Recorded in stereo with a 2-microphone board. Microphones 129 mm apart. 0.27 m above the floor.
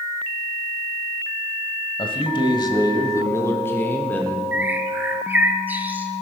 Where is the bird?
15° right (ahead or behind), 1.2 m.